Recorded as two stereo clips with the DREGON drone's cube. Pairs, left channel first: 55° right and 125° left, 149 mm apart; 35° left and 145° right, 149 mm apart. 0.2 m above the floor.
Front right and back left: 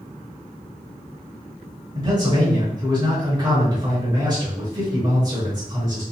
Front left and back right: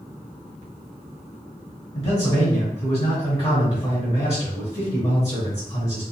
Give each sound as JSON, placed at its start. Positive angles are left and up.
{"t": 1.9, "sound": "a man speaking", "azimuth_deg": 85, "distance_m": 2.0}